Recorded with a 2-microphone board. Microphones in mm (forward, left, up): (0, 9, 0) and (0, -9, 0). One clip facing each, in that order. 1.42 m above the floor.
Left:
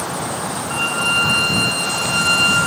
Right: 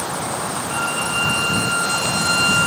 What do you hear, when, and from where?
0.7 s a violin: 10° left (ahead or behind), 2.5 m